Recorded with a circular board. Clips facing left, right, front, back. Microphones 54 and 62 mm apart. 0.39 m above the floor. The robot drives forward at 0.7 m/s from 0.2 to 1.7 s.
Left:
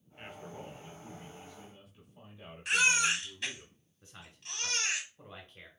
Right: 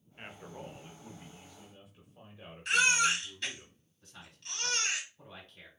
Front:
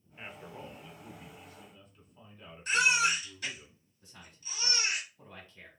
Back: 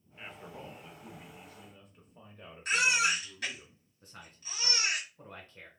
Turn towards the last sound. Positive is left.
turn(degrees=145)